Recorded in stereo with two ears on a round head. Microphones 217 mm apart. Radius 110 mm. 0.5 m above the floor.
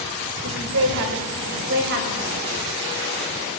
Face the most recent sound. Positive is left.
turn(degrees=-45)  # may be behind; listen again after turning